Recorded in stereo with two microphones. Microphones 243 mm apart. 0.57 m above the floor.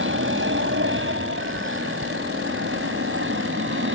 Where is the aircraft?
50° right (ahead or behind); by 4.0 s 55° right (ahead or behind).